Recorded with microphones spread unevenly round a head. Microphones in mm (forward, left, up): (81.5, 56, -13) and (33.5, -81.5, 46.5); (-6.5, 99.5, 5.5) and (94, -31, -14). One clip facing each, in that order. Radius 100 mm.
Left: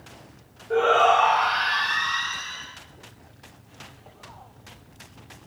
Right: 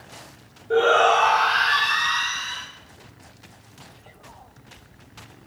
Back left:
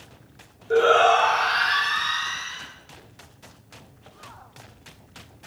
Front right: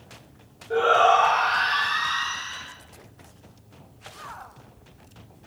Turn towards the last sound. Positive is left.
turn(degrees=-155)